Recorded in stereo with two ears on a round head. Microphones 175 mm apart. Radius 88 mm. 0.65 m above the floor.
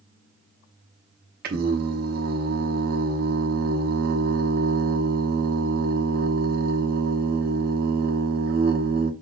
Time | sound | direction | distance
1.4 | singing | 50° right (ahead or behind) | 0.9 m